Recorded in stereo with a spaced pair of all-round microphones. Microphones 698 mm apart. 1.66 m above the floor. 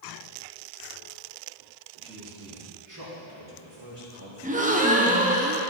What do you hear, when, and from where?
2.0 s a man speaking: 5° right (ahead or behind), 2.5 m; by 5.2 s 60° right (ahead or behind), 3.5 m
4.4 s a gasp: 10° right (ahead or behind), 0.9 m